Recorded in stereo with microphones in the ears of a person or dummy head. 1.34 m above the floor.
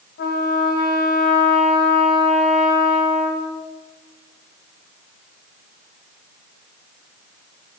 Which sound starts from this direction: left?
A trumpet, at 0.2 s.